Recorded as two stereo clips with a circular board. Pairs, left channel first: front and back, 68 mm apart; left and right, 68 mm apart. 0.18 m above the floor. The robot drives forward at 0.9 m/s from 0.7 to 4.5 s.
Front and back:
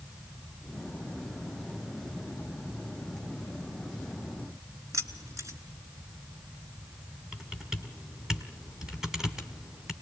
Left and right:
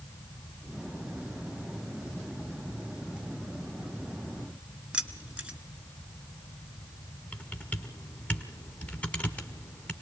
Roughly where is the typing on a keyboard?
Behind left.